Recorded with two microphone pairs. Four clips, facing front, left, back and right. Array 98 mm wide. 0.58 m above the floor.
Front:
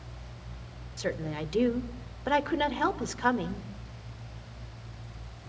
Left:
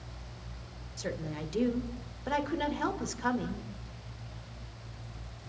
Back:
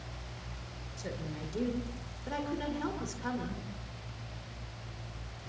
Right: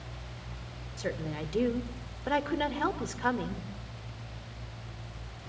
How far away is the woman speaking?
About 2 m.